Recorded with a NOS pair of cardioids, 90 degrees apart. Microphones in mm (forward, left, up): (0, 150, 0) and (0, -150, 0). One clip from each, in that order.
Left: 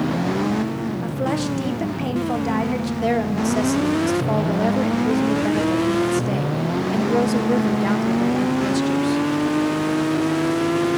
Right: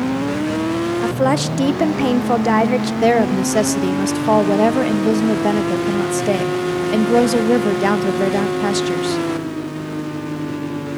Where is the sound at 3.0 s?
45° right, 1.1 m.